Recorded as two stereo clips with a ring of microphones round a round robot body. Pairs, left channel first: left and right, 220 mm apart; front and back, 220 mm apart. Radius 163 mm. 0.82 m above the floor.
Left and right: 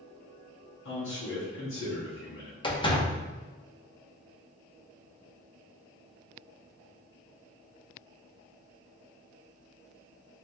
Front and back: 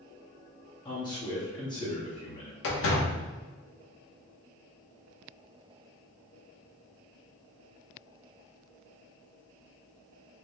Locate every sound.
0.8 s a man speaking: 70° left, 1.3 m
2.6 s a door slam: 20° left, 1.0 m